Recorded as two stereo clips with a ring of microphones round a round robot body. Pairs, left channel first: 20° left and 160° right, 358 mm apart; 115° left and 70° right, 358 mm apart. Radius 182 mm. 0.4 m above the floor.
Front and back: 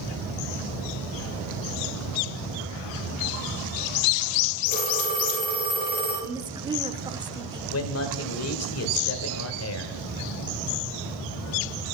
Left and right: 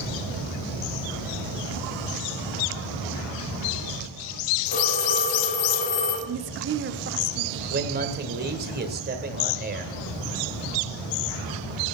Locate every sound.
4.7 s a phone ringing: 90° left, 7.5 m
6.3 s a woman speaking: 90° right, 0.9 m
7.7 s a man speaking: 10° right, 1.9 m